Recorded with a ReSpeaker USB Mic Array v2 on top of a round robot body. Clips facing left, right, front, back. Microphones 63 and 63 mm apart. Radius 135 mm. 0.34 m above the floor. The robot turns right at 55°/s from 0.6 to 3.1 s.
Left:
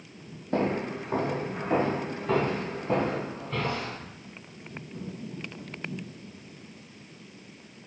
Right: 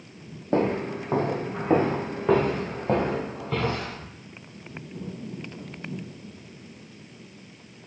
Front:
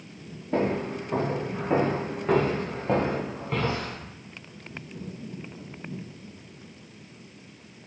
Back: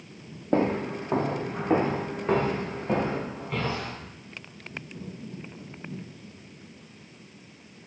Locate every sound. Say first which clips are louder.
0.5 s footsteps: right 3 dB, back 1 dB; 145° right, 0.7 m; by 4.0 s 60° right, 2.5 m